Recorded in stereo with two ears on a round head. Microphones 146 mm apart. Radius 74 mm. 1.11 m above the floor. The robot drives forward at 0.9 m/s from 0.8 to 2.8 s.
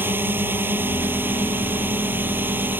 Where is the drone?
15° right (ahead or behind); by 2.8 s 10° right (ahead or behind).